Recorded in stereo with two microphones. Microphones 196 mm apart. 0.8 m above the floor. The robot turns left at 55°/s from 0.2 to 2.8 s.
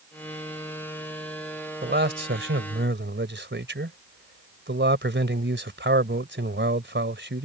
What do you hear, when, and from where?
1.8 s a man speaking: 55° right; by 7.5 s 110° right